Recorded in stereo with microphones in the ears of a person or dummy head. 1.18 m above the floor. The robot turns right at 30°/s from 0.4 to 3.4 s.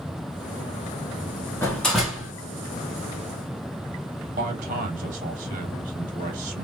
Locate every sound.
1.6 s a door slam: 10° left (ahead or behind), 1.3 m; by 2.3 s 10° right (ahead or behind), 1.3 m
4.4 s a man speaking: 35° right (ahead or behind), 1.3 m